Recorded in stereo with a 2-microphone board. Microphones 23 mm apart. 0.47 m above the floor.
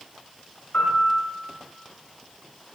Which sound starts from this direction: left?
A piano, at 0.7 s.